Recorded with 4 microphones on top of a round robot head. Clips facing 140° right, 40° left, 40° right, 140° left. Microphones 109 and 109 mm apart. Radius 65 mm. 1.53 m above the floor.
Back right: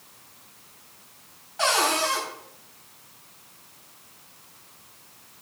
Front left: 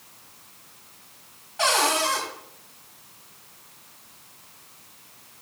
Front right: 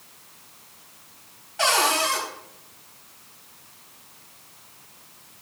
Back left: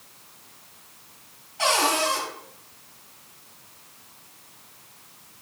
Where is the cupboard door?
45° right, 4 m.